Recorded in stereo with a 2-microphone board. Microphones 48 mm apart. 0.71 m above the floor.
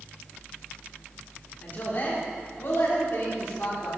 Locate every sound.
1.6 s a woman speaking: 40° left (ahead or behind), 2.5 m; by 3.9 s 50° left (ahead or behind), 2.5 m